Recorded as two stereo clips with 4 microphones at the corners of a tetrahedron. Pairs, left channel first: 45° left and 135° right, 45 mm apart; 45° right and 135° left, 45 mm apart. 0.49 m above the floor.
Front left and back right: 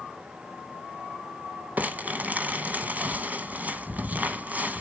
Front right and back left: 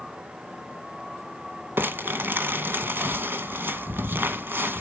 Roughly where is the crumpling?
Behind.